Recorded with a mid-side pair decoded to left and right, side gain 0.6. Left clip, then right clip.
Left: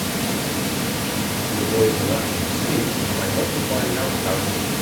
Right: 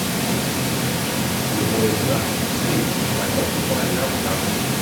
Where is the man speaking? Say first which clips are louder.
Left 3 dB; 10° left, 6.5 m.